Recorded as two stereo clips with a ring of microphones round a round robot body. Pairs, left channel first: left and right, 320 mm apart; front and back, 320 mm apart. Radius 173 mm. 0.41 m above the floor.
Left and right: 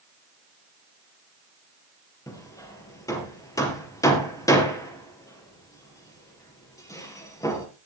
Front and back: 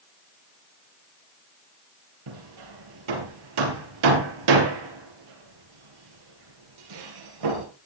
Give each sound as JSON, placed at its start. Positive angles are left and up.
{"t": 2.3, "sound": "hammering", "azimuth_deg": 170, "distance_m": 4.0}